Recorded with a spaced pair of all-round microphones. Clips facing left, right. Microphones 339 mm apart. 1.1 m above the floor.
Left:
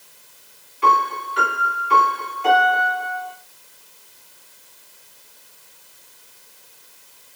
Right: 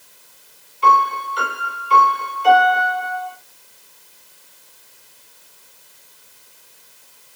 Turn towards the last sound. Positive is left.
turn(degrees=80)